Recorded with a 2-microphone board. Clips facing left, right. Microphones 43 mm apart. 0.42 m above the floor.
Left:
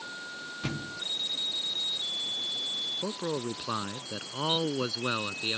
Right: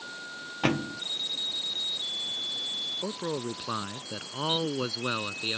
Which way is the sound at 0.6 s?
65° right (ahead or behind).